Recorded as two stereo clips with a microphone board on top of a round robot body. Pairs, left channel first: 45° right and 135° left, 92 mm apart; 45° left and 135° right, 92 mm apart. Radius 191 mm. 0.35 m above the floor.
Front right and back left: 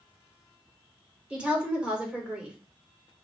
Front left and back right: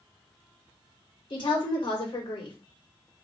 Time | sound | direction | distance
1.3 | a woman speaking | 60° left | 2.5 m